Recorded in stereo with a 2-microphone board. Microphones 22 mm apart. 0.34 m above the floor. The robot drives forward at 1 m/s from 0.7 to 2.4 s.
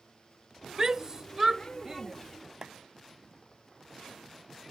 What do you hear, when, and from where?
0.8 s a shout: 30° right (ahead or behind); by 2.1 s 20° right (ahead or behind)
2.6 s a clap: 30° right (ahead or behind)